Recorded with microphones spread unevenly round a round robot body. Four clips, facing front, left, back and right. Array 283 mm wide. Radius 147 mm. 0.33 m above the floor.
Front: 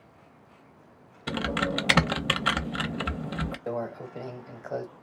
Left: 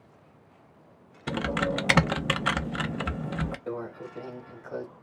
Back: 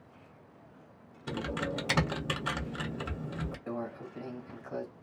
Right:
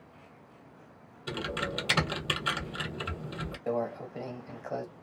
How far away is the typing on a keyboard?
About 0.5 m.